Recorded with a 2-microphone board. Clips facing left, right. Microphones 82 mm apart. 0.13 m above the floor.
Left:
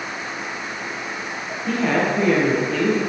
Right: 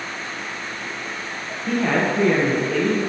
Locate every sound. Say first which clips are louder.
1.7 s a woman speaking: even; 5° right (ahead or behind), 4.5 m